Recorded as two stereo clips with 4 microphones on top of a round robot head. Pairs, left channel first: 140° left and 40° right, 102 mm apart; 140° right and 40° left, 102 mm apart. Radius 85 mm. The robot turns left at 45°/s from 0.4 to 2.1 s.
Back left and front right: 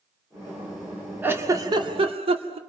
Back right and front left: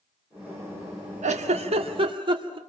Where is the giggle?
35° left, 1.9 m; by 2.6 s 5° right, 1.9 m.